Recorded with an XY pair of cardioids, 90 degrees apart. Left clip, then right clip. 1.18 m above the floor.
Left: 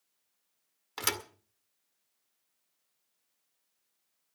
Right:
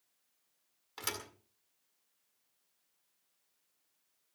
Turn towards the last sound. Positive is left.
turn(degrees=65)